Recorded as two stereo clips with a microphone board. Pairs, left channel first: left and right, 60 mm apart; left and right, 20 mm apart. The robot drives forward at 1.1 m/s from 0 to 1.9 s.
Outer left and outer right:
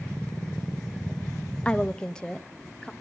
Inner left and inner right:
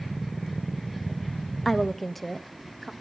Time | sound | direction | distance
1.6 | a woman speaking | 20° left (ahead or behind) | 0.5 m